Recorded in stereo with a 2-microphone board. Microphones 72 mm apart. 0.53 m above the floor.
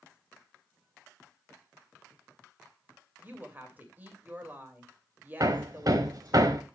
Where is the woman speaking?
25° right (ahead or behind), 2.5 m.